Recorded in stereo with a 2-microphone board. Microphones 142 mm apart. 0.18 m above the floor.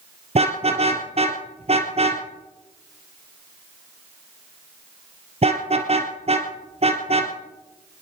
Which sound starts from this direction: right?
A car horn, at 0.3 s.